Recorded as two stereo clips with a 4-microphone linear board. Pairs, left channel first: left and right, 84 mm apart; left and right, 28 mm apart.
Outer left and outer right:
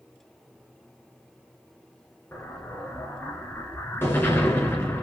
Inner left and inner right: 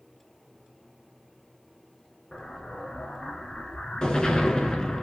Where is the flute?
No flute in this recording.